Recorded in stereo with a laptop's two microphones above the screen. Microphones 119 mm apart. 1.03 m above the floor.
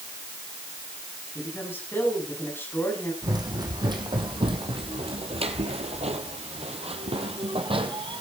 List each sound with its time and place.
1.4 s a woman speaking: 20° left (ahead or behind), 7.5 m
3.2 s running footsteps: 35° right (ahead or behind), 3 m; by 8.2 s 45° right (ahead or behind), 3 m